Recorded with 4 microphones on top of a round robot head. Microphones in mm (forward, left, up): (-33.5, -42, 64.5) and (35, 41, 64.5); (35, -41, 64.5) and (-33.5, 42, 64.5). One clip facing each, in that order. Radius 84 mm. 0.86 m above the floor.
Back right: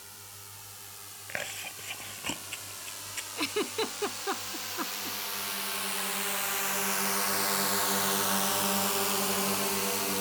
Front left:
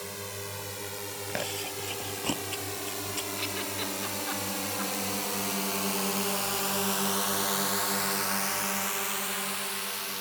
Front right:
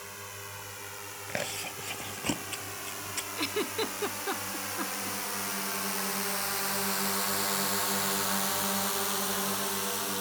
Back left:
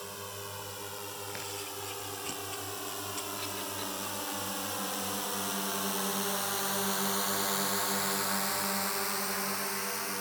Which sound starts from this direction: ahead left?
A drone, at 0.0 s.